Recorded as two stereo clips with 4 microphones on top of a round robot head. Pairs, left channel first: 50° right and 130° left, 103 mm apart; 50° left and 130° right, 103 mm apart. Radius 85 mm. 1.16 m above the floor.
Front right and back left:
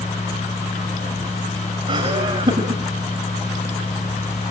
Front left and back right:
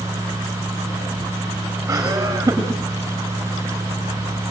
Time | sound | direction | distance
1.9 | laughter | 165° left | 5.5 m